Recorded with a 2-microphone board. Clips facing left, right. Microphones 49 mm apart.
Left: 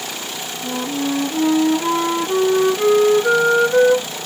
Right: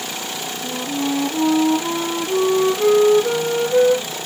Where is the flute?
60° left (ahead or behind), 1.6 m.